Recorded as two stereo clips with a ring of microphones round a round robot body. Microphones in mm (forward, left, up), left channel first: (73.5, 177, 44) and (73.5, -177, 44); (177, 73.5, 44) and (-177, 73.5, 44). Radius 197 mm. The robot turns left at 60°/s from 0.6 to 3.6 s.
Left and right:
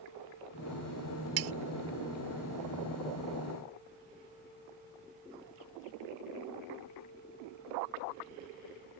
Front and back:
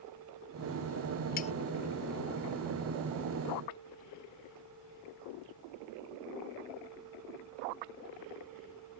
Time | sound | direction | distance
1.4 | cutlery clinking | 70° right | ?